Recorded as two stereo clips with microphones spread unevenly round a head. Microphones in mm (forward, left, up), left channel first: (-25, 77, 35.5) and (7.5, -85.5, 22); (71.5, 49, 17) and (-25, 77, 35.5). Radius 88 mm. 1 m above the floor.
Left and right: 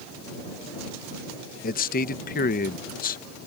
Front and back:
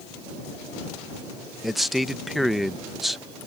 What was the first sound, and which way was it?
A man speaking, 70° left.